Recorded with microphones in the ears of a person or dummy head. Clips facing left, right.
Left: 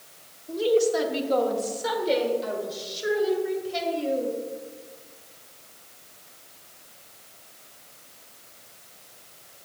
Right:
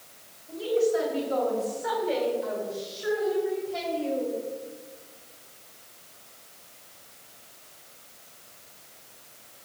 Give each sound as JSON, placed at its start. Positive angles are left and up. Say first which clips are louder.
{"t": 0.5, "sound": "a woman speaking", "louder": "left 3 dB", "side_deg": 70, "distance_m": 1.7}